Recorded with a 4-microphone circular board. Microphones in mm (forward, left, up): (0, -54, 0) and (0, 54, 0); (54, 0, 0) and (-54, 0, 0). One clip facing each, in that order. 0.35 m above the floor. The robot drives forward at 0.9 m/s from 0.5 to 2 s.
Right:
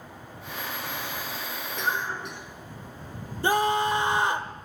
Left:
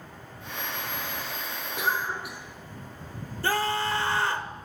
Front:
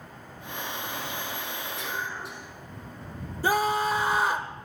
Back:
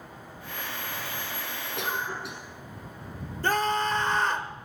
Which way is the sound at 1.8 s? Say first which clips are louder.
Left 1 dB, back 5 dB; 170° left.